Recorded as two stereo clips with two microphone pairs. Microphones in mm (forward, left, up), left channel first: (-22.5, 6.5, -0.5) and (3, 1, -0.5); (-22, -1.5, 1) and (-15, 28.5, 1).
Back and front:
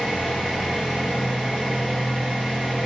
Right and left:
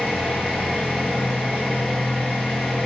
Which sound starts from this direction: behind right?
An engine running, at 0.0 s.